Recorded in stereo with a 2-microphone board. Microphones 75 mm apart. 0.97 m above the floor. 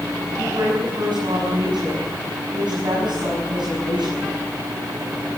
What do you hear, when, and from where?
0.4 s a woman speaking: 90° right, 7 m